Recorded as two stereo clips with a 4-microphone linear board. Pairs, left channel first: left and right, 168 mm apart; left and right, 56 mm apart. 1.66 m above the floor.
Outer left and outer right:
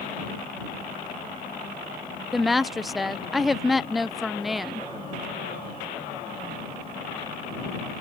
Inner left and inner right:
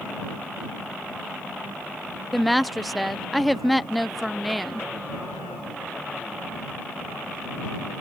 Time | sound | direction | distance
2.3 | a woman speaking | centre (ahead or behind) | ?